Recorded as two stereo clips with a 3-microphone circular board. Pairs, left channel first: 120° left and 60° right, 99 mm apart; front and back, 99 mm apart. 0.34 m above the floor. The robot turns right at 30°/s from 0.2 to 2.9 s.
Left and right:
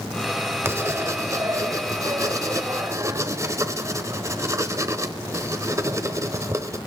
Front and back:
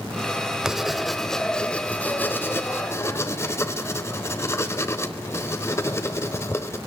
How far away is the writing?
About 1.1 m.